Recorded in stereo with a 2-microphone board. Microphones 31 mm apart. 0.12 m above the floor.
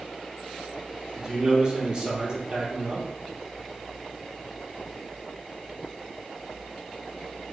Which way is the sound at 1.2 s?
30° right (ahead or behind).